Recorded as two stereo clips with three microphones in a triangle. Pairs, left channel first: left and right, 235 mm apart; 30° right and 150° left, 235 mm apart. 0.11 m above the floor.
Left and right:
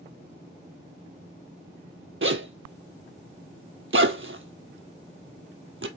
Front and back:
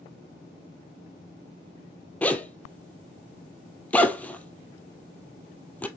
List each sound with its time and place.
2.2 s a zipper: 115° right, 0.9 m